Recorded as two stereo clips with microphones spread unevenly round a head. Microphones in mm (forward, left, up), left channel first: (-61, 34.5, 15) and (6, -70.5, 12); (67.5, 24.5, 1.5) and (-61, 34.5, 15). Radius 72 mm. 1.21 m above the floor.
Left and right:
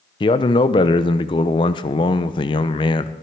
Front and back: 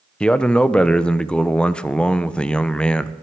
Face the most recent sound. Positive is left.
turn(degrees=70)